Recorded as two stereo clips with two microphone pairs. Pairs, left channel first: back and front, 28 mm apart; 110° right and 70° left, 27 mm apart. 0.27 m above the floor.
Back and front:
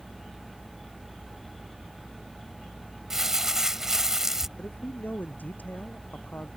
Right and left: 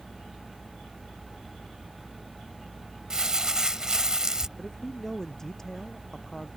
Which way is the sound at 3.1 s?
45° left.